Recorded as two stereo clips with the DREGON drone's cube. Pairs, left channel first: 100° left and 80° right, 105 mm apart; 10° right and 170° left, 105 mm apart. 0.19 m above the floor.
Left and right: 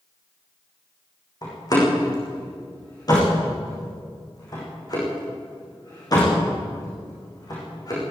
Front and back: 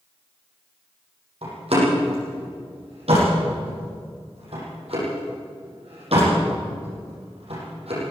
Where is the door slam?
150° left, 8.5 m.